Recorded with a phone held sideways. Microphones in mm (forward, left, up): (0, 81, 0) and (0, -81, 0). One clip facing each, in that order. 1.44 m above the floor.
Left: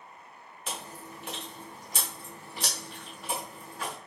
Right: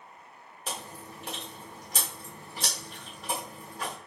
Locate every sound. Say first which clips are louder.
0.7 s chewing: right 1 dB; 35° right (ahead or behind), 1.0 m